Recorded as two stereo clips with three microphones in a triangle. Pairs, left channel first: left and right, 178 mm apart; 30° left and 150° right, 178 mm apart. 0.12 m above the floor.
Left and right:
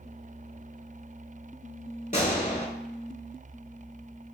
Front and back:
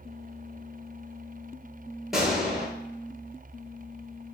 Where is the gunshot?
125° left, 0.7 m.